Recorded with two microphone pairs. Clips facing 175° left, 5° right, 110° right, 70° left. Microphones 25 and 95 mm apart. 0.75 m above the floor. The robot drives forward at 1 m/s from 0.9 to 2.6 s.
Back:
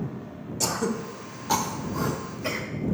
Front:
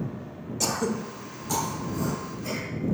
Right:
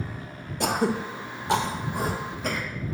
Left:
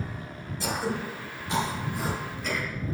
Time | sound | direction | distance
0.6 | throat clearing | 90° right | 0.7 m